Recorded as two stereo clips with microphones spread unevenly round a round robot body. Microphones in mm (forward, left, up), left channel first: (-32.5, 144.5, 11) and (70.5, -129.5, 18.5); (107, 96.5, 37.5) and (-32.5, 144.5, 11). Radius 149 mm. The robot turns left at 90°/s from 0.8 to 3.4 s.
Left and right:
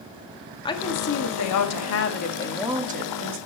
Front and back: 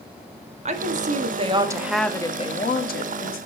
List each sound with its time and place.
0.7 s a woman speaking: straight behind, 1.4 m; by 3.4 s 50° right, 1.4 m